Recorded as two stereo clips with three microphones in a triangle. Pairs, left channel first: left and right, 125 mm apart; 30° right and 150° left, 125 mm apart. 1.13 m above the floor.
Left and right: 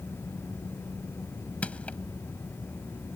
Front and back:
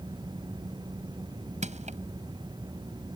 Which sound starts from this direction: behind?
Crushing, at 1.6 s.